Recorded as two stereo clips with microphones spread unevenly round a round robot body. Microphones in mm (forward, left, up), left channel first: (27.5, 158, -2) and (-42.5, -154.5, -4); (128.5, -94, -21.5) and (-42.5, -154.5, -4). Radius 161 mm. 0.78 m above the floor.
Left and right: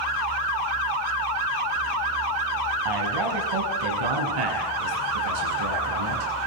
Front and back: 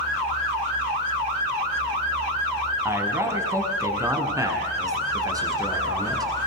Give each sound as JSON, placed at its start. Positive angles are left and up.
{"t": 2.9, "sound": "a man speaking", "azimuth_deg": -85, "distance_m": 6.5}